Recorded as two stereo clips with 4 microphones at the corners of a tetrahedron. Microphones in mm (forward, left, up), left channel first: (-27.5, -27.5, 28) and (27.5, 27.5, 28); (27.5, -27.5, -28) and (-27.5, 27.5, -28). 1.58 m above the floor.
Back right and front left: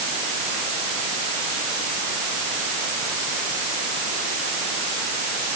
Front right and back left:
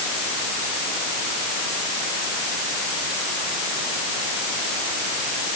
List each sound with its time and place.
Only background noise.